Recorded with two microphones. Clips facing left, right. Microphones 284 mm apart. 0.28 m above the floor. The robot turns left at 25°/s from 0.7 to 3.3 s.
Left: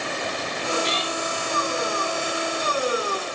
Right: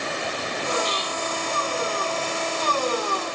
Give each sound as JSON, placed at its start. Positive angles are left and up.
{"t": 0.8, "sound": "a cat meowing", "side_deg": 75}